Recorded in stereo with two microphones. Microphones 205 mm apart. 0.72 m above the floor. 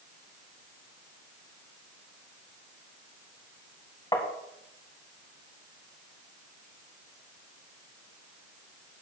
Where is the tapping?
20° left (ahead or behind), 1.6 m.